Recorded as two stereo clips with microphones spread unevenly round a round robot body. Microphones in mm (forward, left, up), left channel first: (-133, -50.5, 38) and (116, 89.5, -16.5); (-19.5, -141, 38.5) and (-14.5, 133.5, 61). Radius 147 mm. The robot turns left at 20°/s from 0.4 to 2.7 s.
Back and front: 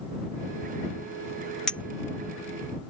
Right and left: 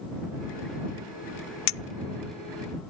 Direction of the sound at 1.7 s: 60° right.